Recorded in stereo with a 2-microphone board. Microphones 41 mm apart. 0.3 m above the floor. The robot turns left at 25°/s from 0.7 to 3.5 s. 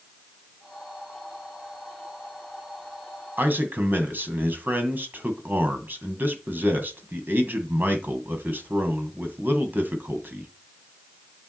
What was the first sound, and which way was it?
A man speaking, 55° right (ahead or behind).